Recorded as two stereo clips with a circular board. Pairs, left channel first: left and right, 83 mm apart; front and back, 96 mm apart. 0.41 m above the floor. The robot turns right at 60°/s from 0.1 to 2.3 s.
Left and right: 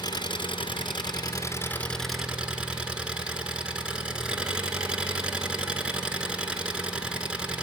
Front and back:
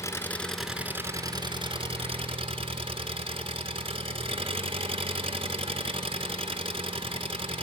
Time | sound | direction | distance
0.0 | an engine running | 60° left | 2 m